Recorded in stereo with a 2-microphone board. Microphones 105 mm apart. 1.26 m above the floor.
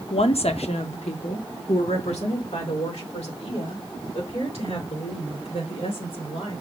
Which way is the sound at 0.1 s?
60° left (ahead or behind).